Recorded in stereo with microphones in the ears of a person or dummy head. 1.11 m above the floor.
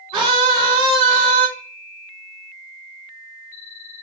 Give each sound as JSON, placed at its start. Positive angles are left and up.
{"t": 0.1, "sound": "a scream", "side_deg": -30, "distance_m": 2.5}